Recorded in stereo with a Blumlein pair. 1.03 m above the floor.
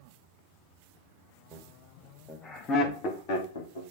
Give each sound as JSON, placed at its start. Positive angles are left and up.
{"t": 1.5, "sound": "laughter", "azimuth_deg": -10, "distance_m": 2.0}